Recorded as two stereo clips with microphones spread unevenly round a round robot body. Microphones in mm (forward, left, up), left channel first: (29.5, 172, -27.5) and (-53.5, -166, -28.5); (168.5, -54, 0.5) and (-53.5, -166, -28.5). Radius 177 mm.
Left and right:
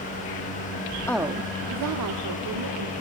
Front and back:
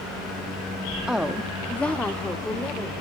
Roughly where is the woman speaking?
Behind left.